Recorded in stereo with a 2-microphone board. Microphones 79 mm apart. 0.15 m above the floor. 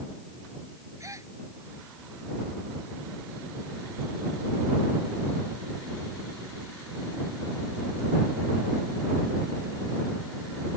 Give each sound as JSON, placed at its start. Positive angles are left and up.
{"t": 1.0, "sound": "a gasp", "side_deg": -40}